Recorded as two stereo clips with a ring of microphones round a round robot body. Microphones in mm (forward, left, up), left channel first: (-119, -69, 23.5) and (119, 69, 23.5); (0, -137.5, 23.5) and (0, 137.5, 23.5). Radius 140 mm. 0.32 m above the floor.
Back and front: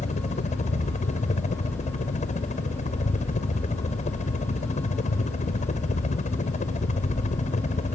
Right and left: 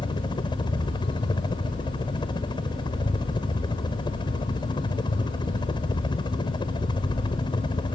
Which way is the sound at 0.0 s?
140° right.